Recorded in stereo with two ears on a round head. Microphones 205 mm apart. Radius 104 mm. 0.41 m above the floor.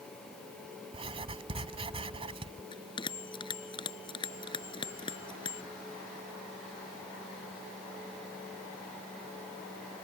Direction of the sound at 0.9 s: 25° right (ahead or behind).